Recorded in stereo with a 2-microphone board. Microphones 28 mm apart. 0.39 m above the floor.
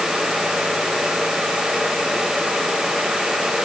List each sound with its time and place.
Only background noise.